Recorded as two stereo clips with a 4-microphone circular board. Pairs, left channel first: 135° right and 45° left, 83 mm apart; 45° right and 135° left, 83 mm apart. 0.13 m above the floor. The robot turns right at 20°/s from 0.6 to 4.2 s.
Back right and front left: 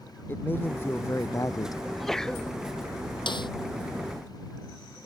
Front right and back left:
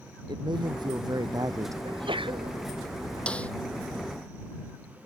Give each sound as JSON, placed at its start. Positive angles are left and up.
{"t": 0.3, "sound": "a man speaking", "azimuth_deg": 160}
{"t": 1.9, "sound": "a sneeze", "azimuth_deg": 135}
{"t": 3.3, "sound": "a snare drum", "azimuth_deg": -120}